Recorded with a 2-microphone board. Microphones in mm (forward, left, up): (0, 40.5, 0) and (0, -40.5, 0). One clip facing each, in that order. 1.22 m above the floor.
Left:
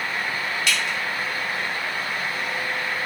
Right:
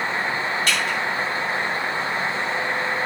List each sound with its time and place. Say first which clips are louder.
0.7 s dripping: right 2 dB; 40° right (ahead or behind), 2 m